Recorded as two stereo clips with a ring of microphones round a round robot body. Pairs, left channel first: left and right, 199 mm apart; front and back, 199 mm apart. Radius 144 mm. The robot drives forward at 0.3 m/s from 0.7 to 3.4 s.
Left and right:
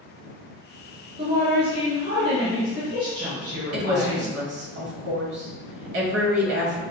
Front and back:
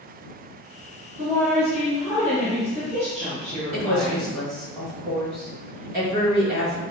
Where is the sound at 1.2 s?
70° right, 1.8 m; by 4.3 s 95° right, 1.8 m.